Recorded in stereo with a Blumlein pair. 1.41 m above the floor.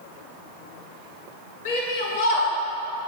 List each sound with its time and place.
1.6 s a shout: 60° left, 4.5 m